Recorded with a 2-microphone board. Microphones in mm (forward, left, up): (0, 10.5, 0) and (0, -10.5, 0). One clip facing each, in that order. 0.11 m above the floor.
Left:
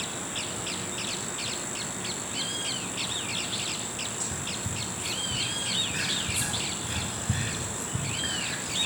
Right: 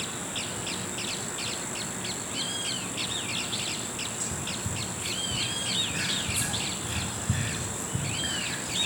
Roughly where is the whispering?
Centre.